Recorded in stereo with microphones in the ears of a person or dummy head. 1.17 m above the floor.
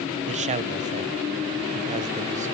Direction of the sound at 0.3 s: 35° right (ahead or behind).